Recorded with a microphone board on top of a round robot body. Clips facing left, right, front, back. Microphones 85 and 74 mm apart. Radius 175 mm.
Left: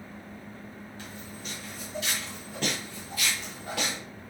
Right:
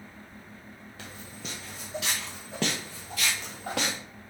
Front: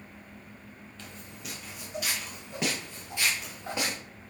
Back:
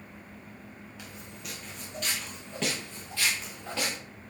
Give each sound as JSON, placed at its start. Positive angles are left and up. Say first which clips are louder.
{"t": 1.0, "sound": "footsteps", "louder": "right 2 dB, front 1 dB", "azimuth_deg": -100, "distance_m": 1.1}